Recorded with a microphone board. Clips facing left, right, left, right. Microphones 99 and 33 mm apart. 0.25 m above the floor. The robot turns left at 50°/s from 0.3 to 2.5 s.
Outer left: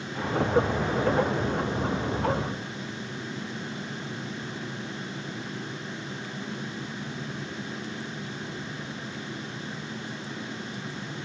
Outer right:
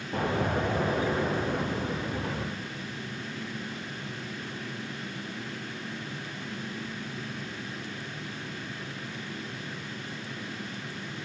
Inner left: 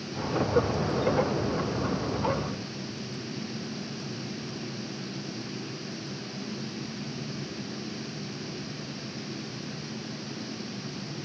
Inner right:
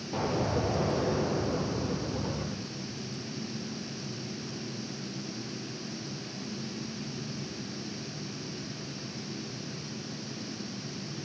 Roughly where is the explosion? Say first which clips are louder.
Outer left 4 dB, inner left 4 dB; right.